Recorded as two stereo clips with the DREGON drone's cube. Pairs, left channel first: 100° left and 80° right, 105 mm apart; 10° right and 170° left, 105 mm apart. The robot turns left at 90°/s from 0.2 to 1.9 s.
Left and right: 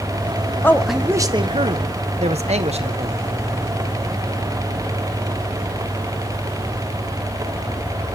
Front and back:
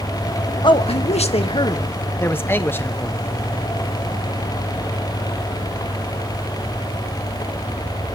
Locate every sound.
0.6 s a man speaking: 30° left, 1.3 m; by 3.1 s 80° right, 1.3 m